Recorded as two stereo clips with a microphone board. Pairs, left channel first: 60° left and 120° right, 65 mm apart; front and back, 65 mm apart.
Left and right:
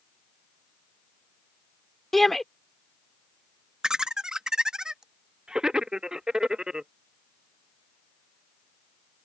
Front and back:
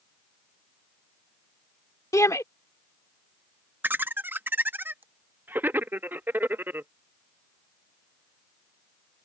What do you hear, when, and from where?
2.1 s a shout: 25° right
3.8 s laughter: 170° left